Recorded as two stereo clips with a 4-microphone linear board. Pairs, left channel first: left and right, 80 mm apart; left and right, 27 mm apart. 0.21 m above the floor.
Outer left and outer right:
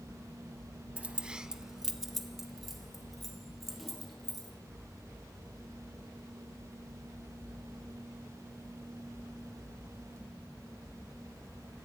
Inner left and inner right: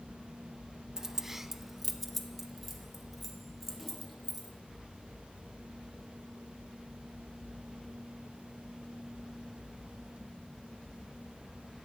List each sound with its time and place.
1.0 s keys jangling: 15° right (ahead or behind), 0.7 m; by 4.6 s centre (ahead or behind), 5 m